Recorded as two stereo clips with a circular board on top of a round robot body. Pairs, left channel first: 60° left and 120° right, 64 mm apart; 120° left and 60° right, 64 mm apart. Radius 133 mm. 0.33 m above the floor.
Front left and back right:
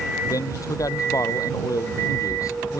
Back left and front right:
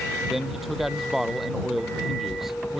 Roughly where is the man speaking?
Ahead left.